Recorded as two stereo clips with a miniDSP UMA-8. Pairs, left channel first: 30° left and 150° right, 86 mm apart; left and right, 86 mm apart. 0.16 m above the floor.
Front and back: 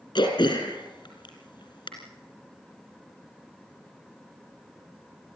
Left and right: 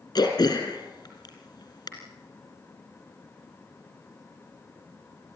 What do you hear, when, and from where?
0.1 s throat clearing: 50° left, 3 m